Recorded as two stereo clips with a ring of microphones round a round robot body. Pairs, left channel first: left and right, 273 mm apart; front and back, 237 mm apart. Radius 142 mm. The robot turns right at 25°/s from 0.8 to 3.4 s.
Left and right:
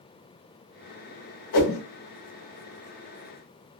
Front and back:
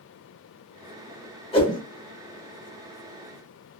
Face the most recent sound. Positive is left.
turn(degrees=115)